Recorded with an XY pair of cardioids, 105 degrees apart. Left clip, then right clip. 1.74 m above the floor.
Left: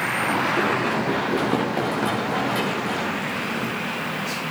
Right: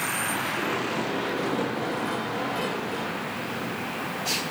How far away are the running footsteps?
About 9 m.